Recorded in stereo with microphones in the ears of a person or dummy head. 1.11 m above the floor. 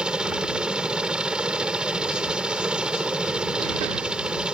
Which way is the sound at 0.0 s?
5° right (ahead or behind).